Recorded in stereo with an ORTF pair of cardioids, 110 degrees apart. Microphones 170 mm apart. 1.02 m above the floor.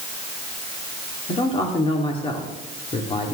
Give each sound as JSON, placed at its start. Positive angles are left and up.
{"t": 1.3, "sound": "a man speaking", "azimuth_deg": 35, "distance_m": 2.5}